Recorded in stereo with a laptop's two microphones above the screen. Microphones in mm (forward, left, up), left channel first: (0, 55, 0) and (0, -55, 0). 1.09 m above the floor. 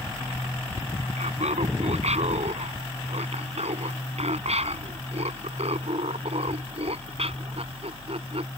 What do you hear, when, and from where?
1.2 s laughter: 80° right; by 8.5 s 60° right (ahead or behind)